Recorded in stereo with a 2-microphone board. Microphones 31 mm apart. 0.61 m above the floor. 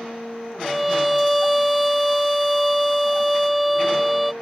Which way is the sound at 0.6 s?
Centre (ahead or behind).